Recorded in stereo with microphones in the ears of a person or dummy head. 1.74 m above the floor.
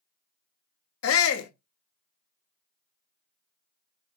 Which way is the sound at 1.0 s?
90° left.